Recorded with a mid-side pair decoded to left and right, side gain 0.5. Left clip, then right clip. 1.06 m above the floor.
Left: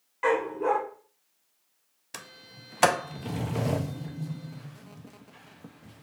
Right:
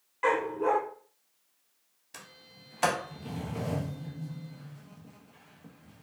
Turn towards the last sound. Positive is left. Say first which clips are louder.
# left 5 dB
turn(degrees=50)